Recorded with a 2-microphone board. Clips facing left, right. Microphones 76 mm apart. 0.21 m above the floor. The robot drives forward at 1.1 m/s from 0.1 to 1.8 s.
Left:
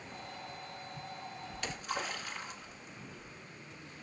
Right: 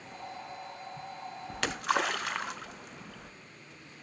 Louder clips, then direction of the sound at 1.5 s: Right 10 dB; 60° right (ahead or behind).